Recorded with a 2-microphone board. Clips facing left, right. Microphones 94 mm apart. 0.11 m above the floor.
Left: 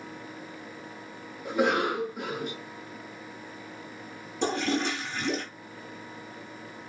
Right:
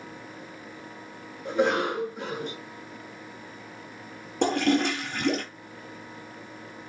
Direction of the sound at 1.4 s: 10° left (ahead or behind).